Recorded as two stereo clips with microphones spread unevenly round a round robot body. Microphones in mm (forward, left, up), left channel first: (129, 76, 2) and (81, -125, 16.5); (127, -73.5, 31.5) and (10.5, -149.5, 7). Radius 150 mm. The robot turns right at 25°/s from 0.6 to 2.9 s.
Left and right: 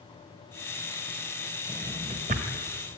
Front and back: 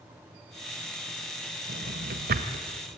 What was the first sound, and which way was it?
A drawer, 175° left.